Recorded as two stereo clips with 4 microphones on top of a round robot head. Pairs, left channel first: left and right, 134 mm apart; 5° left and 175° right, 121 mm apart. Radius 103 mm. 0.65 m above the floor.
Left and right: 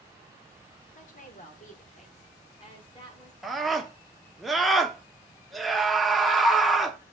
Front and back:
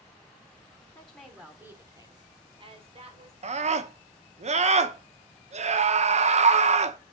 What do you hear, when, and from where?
0.9 s a woman speaking: 85° left, 2 m; by 3.3 s 155° left, 3.5 m
3.4 s a scream: straight behind, 1.1 m